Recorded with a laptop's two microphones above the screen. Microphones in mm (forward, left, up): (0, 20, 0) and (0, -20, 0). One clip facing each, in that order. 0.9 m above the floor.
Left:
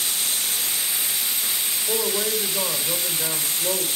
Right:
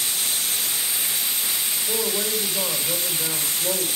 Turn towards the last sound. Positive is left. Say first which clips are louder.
# left 2 dB
turn(degrees=25)  # may be behind; listen again after turning